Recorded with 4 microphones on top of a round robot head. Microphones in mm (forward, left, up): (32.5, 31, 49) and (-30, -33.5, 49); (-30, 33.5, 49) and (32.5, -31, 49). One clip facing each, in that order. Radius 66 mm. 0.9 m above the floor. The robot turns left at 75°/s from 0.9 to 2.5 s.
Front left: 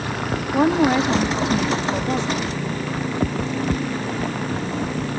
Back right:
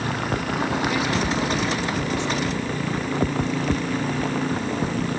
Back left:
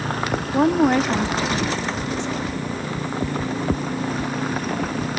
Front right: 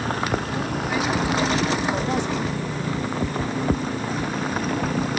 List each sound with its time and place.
0.5 s a woman speaking: 95° left, 1.6 m; by 2.5 s 25° right, 1.6 m